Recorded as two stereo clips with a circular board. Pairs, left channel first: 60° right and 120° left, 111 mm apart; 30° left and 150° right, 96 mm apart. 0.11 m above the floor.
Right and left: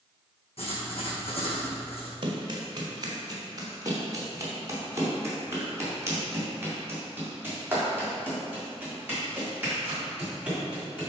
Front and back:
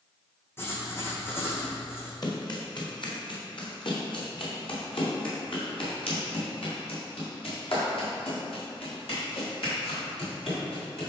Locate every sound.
0.6 s writing: 35° right, 2 m
2.2 s running footsteps: 75° left, 2 m; by 11.1 s 40° left, 7 m